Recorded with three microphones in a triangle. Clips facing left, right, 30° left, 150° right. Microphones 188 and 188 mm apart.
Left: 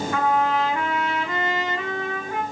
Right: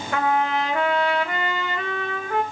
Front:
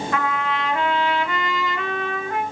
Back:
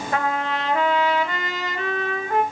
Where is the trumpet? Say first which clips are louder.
Even, back 2 dB; 100° right, 0.7 m.